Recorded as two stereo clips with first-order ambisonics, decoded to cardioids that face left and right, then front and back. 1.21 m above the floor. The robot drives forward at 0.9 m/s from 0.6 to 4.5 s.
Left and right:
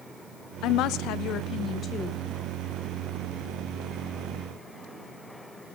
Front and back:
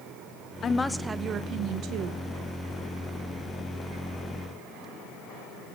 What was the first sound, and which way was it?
A woman speaking, 60° left.